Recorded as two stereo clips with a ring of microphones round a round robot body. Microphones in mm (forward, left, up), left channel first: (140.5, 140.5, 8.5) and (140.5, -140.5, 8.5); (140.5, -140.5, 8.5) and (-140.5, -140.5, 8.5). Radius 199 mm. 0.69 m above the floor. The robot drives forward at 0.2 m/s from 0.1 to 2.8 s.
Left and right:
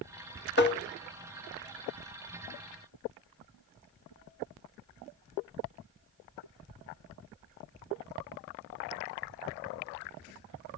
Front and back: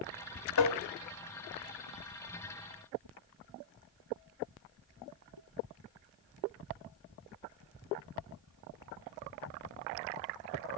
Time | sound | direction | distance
0.6 | tapping | 40° left | 1.1 m